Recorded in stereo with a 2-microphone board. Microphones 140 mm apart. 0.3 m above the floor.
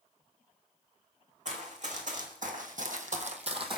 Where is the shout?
I don't hear a shout.